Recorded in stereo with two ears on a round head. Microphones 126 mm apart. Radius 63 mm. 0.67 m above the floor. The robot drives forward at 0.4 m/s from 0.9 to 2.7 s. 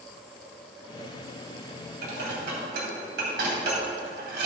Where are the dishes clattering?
85° right, 2.5 m; by 4.5 s 80° right, 2.5 m.